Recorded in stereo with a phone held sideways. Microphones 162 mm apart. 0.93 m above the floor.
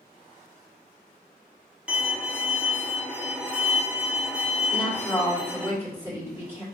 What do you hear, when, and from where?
1.9 s a violin: 5° right (ahead or behind), 0.9 m
4.7 s a woman speaking: 20° right (ahead or behind), 2.5 m